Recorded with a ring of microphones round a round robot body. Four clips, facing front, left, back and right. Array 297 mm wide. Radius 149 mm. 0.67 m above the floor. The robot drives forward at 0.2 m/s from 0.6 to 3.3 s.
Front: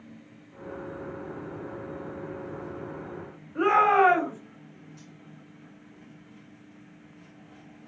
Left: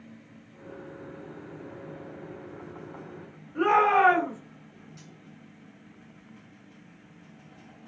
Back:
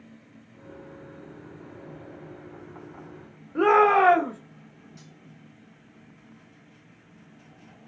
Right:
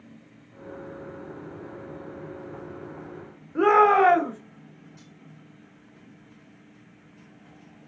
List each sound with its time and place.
3.5 s a shout: 145° right, 1.4 m
5.0 s cutlery clinking: 150° left, 1.5 m